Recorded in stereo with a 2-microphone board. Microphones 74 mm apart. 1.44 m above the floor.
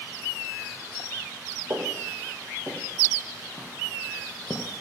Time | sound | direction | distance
1.7 | footsteps | 40° right (ahead or behind) | 3 m